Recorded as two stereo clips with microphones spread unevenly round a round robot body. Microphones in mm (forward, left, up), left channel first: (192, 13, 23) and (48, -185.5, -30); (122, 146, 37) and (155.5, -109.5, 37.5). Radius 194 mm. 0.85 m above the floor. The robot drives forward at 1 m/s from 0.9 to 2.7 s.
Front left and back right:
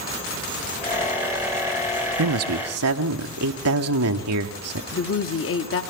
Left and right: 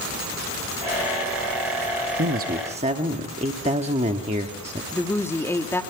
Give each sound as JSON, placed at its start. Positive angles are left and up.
{"t": 2.2, "sound": "a man speaking", "azimuth_deg": -135, "distance_m": 0.8}
{"t": 4.9, "sound": "a woman speaking", "azimuth_deg": 15, "distance_m": 1.5}